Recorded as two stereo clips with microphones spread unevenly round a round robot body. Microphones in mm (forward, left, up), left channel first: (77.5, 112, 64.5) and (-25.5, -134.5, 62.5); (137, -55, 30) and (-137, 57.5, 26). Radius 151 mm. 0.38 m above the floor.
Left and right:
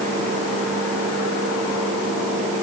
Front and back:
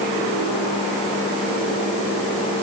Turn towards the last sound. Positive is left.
No sound to turn to.